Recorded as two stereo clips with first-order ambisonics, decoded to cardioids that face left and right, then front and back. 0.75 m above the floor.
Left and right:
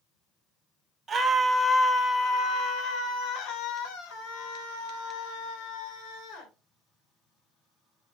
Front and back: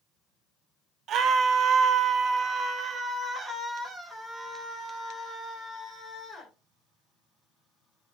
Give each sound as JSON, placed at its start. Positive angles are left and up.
{"t": 1.1, "sound": "a scream", "azimuth_deg": -155, "distance_m": 1.0}